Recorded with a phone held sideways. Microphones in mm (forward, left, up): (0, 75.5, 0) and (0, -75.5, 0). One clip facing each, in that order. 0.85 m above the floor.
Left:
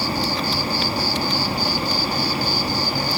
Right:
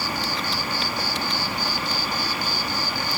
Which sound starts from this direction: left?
An insect, at 0.0 s.